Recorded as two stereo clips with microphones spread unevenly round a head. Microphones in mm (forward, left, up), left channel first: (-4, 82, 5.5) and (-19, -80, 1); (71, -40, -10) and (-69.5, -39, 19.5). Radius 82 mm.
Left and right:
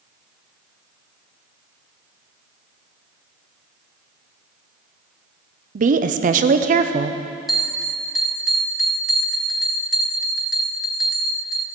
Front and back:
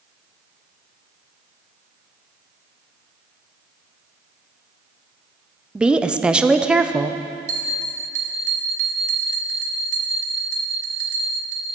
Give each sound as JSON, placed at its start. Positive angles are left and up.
{"t": 5.8, "sound": "a woman speaking", "azimuth_deg": -90, "distance_m": 0.5}
{"t": 7.5, "sound": "a bell", "azimuth_deg": 175, "distance_m": 1.0}